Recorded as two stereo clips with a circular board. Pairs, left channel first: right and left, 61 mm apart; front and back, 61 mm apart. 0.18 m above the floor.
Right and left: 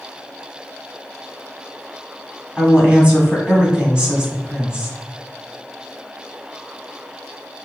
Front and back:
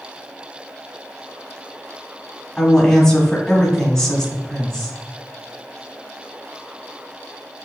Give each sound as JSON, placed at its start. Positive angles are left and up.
{"t": 2.6, "sound": "a woman speaking", "azimuth_deg": 65, "distance_m": 1.5}